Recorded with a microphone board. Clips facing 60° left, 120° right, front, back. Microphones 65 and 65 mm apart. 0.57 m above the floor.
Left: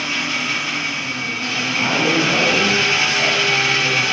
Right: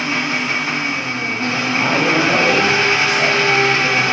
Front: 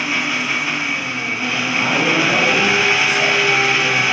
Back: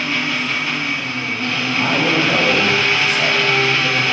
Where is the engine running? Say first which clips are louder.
Right 3 dB, even; 75° right, 0.7 m.